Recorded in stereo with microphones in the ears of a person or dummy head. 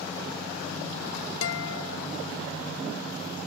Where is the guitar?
70° left (ahead or behind), 0.5 m.